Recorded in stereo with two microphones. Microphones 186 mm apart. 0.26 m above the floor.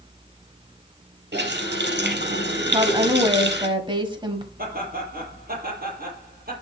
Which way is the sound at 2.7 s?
25° right (ahead or behind).